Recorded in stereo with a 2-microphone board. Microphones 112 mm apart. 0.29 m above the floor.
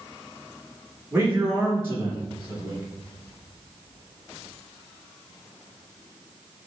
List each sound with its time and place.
1.1 s a man speaking: 20° right (ahead or behind), 3.5 m